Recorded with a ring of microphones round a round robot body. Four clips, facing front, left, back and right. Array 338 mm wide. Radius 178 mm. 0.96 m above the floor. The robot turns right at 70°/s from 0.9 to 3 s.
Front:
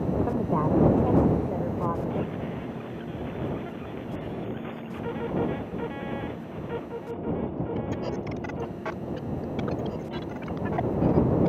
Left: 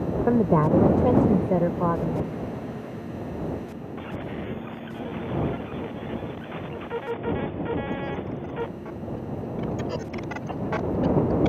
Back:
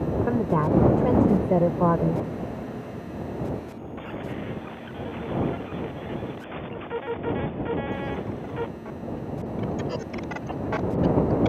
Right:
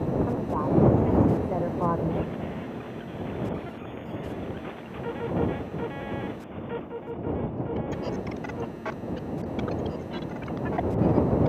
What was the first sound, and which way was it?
A woman speaking, 100° left.